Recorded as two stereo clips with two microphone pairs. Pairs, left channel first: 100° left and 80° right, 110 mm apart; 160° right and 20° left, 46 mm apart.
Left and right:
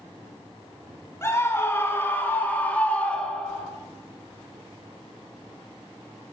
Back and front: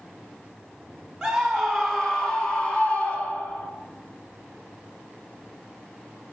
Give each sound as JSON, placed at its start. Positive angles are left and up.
{"t": 1.2, "sound": "a scream", "azimuth_deg": 100, "distance_m": 1.8}